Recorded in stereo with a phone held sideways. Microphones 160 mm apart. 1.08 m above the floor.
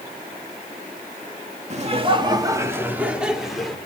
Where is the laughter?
45° right (ahead or behind), 2.5 m; by 3.8 s centre (ahead or behind), 4.5 m.